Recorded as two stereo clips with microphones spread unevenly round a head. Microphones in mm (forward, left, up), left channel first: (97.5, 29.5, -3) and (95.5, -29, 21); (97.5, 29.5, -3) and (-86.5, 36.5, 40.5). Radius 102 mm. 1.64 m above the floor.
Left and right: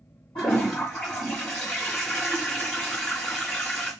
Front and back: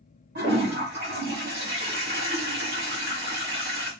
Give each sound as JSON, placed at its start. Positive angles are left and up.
{"t": 0.3, "sound": "a toilet flushing", "azimuth_deg": 145, "distance_m": 1.4}